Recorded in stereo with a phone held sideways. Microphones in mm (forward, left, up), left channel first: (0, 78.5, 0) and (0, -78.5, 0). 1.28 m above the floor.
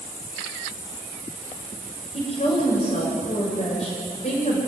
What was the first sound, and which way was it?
A woman speaking, 45° left (ahead or behind).